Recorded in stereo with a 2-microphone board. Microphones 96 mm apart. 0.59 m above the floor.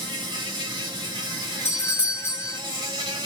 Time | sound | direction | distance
0.0 | an insect | 50° right (ahead or behind) | 1.7 m
1.6 | a doorbell | 25° left (ahead or behind) | 1.0 m